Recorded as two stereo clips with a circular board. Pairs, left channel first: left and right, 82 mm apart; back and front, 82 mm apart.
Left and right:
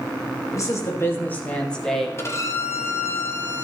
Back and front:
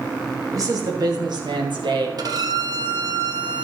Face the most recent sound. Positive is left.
turn(degrees=35)